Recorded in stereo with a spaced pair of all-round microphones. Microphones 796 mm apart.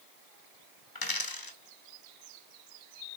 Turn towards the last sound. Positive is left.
turn(degrees=25)  # may be behind; listen again after turning